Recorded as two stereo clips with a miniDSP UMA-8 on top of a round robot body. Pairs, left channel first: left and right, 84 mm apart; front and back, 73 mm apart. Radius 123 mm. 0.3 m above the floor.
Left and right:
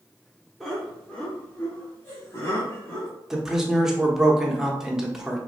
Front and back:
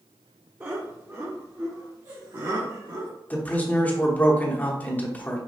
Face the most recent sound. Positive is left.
turn(degrees=-15)